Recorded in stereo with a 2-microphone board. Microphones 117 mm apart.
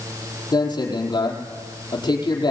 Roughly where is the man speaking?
Left.